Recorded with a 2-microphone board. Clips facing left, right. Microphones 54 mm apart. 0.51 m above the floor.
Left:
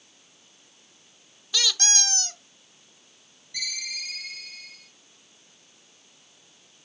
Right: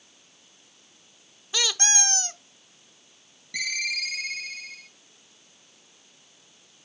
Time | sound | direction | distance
1.5 | a squeak | 25° right (ahead or behind) | 0.8 m
3.5 | a ringtone | 75° right (ahead or behind) | 4 m